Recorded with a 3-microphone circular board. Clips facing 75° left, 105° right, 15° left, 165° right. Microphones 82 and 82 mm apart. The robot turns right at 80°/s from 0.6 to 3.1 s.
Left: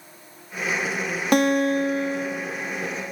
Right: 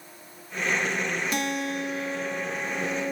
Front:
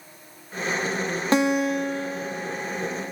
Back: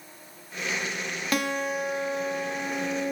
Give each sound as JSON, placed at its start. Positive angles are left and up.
{"t": 1.3, "sound": "a guitar", "azimuth_deg": 75, "distance_m": 1.0}